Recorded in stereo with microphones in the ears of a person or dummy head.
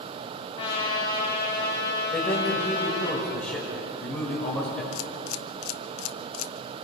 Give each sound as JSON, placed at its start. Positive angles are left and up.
{"t": 0.6, "sound": "a trumpet", "side_deg": 30, "distance_m": 5.0}
{"t": 2.1, "sound": "a man speaking", "side_deg": 5, "distance_m": 6.5}
{"t": 4.9, "sound": "a camera shutter", "side_deg": 85, "distance_m": 0.8}